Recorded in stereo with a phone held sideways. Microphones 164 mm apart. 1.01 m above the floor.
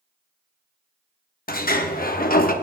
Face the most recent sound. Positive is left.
turn(degrees=60)  # may be behind; listen again after turning